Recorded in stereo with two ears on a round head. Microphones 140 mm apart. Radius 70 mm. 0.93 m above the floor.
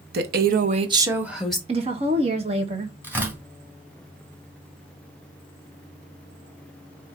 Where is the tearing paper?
15° right (ahead or behind), 3.5 m.